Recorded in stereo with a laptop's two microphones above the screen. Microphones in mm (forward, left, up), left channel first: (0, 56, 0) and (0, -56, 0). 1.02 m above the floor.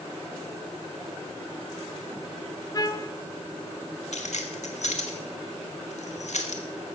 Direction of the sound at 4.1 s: 75° left (ahead or behind).